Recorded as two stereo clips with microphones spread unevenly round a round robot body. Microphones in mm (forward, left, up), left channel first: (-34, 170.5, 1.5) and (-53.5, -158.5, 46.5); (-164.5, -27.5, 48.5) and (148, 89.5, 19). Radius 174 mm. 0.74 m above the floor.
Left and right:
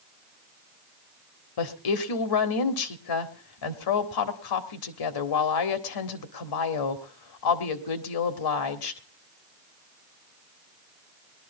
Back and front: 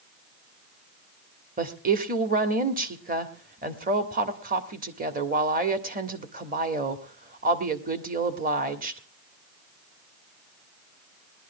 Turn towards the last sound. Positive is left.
turn(degrees=85)